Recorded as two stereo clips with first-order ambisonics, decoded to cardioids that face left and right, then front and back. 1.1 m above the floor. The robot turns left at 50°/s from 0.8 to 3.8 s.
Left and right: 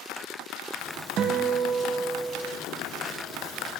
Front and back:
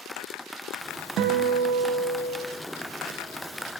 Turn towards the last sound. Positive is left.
turn(degrees=85)